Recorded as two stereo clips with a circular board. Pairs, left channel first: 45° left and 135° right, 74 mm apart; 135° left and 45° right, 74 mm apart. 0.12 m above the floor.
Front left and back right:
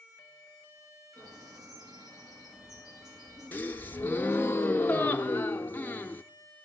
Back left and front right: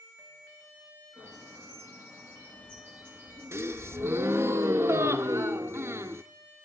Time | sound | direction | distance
1.2 | a bird | 110° right | 9.5 m
3.5 | a gasp | 10° right | 0.5 m